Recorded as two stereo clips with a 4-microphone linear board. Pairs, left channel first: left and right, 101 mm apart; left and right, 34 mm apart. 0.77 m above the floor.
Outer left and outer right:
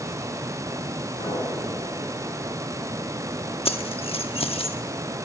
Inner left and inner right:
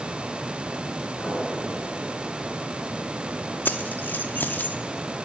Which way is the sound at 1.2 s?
80° left.